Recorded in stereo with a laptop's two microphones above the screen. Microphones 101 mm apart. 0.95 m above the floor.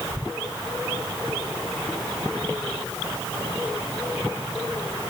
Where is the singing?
I don't hear singing.